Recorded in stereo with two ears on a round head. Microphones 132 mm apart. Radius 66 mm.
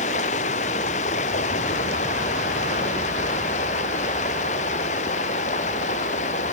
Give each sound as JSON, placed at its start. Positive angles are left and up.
{"t": 0.0, "sound": "running water", "side_deg": 50}